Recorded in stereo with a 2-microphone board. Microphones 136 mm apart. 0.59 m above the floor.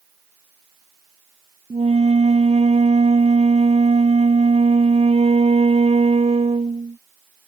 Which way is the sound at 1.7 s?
50° right (ahead or behind).